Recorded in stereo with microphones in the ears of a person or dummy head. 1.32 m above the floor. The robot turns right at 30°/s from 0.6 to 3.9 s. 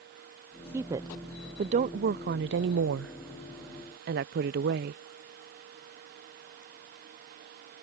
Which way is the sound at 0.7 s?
15° right (ahead or behind).